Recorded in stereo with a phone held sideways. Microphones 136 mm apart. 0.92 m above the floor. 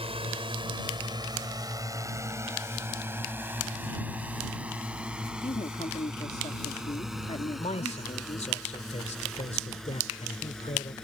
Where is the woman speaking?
50° left (ahead or behind).